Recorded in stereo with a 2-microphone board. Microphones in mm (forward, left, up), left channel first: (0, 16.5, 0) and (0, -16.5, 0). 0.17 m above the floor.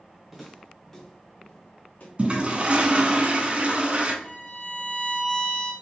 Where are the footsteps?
5° right (ahead or behind), 1.5 m; by 2.1 s 50° left (ahead or behind), 1.6 m.